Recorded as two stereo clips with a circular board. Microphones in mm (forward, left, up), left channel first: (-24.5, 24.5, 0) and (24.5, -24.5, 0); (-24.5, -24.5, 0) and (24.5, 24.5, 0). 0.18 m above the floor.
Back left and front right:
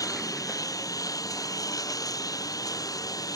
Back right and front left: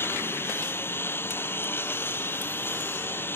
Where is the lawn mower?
165° left.